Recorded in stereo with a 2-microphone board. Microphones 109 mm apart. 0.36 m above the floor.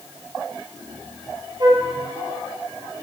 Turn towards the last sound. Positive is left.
turn(degrees=-40)  # may be behind; listen again after turning